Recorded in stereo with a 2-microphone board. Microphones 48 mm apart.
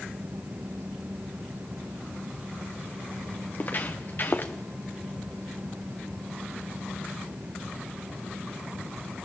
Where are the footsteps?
40° left (ahead or behind), 3 m; by 4.5 s 45° left (ahead or behind), 2.5 m.